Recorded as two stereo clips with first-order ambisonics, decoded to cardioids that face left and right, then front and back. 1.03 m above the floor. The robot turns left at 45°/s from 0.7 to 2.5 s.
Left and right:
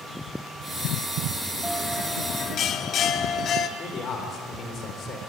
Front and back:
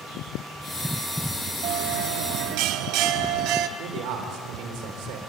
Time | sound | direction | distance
1.6 | a bell | 175° right | 0.9 m
3.8 | a man speaking | 155° left | 3.5 m